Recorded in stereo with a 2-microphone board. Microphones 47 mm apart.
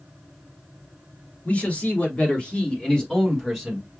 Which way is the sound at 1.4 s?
40° left (ahead or behind).